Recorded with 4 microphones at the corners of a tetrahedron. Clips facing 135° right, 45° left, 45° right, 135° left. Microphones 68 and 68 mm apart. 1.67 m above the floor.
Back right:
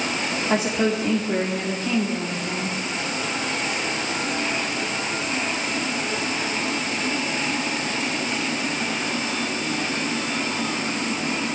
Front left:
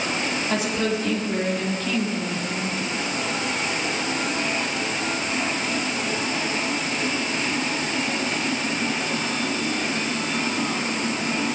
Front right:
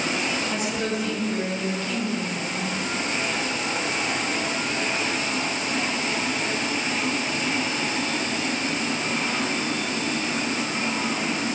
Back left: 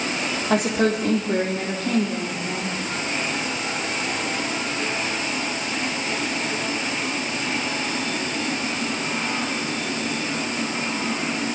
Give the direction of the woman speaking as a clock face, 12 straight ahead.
7 o'clock.